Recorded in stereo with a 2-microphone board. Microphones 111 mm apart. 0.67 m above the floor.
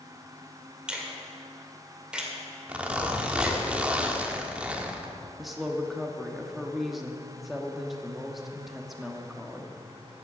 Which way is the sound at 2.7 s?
10° right (ahead or behind).